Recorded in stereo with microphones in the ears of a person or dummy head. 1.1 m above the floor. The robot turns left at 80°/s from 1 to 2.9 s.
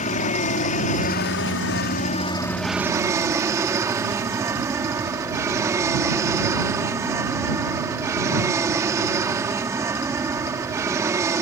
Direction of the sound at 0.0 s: 135° left.